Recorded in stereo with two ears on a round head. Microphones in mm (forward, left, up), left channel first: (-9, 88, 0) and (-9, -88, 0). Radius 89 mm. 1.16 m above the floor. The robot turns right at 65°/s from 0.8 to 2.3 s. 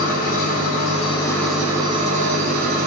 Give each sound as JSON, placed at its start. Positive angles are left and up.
{"t": 0.0, "sound": "an engine running", "azimuth_deg": 135, "distance_m": 0.9}